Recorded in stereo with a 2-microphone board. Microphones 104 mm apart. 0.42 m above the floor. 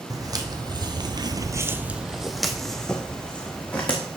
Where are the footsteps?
35° right (ahead or behind), 1.1 m; by 4.0 s 10° left (ahead or behind), 2.0 m.